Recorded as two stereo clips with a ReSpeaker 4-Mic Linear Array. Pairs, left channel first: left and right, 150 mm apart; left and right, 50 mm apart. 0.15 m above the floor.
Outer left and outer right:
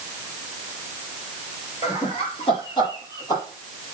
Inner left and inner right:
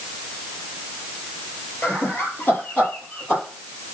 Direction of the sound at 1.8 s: 45° left (ahead or behind).